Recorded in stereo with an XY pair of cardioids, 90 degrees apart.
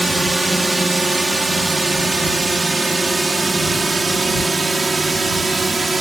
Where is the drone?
10° right; by 6.0 s 25° right.